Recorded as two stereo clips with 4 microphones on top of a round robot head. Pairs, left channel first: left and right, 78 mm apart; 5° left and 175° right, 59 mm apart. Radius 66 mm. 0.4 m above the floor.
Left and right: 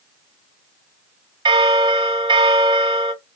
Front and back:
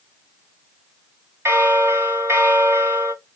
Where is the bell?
125° right, 0.9 m.